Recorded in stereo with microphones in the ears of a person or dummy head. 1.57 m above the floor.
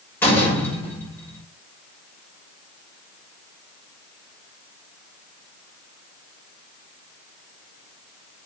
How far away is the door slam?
About 5.5 m.